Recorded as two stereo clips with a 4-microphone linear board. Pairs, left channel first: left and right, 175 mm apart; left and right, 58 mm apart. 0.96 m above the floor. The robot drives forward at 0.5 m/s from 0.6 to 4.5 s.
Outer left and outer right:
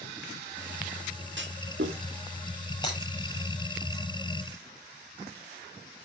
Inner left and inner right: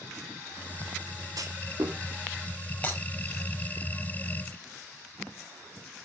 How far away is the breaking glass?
About 6 m.